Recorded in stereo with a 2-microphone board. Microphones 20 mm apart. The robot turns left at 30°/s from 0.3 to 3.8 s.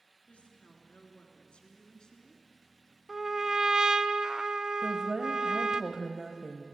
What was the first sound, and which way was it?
A woman speaking, 90° left.